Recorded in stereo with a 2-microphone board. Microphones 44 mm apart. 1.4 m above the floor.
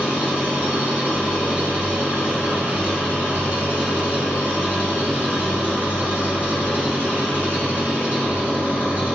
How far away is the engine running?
About 3 m.